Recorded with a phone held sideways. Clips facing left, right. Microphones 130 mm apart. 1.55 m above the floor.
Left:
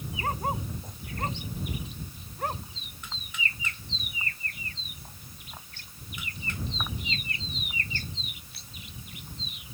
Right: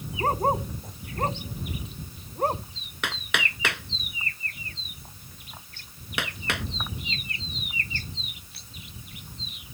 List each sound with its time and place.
0.2 s a dog barking: 40° right (ahead or behind); by 2.6 s 35° right (ahead or behind)
3.0 s hammering: 85° right